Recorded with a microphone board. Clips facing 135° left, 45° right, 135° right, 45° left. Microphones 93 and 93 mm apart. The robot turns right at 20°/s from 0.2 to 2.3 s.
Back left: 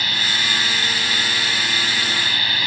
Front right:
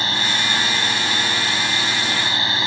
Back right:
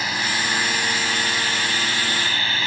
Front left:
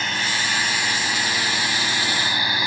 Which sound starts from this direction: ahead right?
A drone, at 0.0 s.